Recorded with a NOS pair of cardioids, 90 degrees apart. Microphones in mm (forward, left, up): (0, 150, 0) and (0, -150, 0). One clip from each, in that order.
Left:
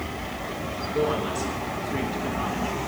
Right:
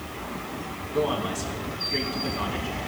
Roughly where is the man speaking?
Ahead.